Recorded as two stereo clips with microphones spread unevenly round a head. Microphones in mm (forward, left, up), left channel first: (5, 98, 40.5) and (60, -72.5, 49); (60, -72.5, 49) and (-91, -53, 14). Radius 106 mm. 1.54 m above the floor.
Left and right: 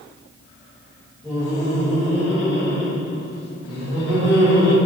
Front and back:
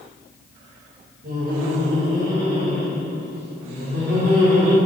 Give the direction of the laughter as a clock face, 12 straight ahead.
6 o'clock.